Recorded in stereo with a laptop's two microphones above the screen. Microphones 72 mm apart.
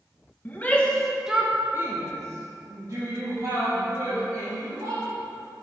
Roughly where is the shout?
Left.